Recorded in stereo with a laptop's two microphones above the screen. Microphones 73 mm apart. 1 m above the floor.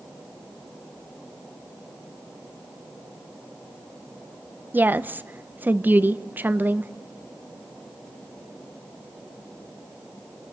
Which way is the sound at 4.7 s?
25° right (ahead or behind).